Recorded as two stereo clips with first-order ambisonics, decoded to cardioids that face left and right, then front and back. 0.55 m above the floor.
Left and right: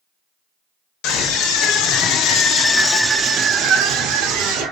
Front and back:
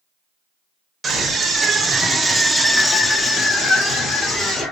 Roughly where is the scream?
Left.